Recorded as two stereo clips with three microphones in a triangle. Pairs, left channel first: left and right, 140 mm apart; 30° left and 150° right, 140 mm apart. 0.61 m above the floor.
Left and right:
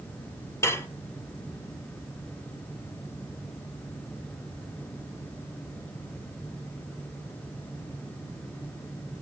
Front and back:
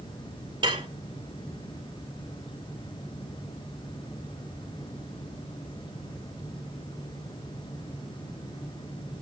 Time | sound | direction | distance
0.6 | dishes clattering | 160° left | 1.4 m